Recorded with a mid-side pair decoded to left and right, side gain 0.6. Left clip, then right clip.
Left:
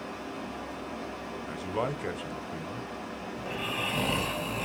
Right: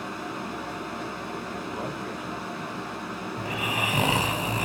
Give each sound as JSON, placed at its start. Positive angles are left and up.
{"t": 0.0, "sound": "a fan", "azimuth_deg": -65, "distance_m": 1.2}
{"t": 1.5, "sound": "a man speaking", "azimuth_deg": 45, "distance_m": 0.6}
{"t": 3.4, "sound": "snoring", "azimuth_deg": -50, "distance_m": 0.7}